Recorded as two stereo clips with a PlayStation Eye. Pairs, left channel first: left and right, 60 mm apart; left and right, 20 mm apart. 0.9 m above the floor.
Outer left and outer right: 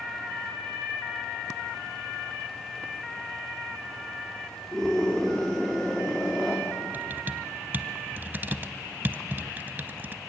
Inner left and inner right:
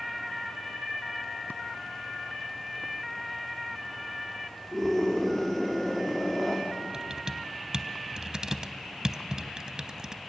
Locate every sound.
4.7 s a scream: 5° left (ahead or behind), 2 m
6.9 s typing on a keyboard: 35° right (ahead or behind), 0.8 m